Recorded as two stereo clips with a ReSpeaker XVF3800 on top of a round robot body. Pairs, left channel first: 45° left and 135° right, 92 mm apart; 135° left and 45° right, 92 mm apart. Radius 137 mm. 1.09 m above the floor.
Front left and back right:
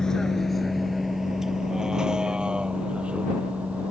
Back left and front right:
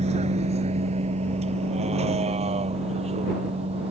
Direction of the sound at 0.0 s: 40° right.